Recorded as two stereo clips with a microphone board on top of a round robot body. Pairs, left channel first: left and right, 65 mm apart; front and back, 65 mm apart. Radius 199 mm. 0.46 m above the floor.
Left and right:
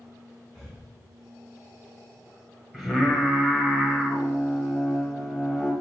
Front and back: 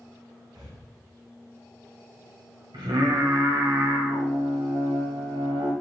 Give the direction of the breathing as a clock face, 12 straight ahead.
6 o'clock.